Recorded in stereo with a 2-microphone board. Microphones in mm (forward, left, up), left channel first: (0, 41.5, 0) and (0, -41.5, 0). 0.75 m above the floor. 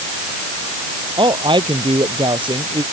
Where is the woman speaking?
85° right.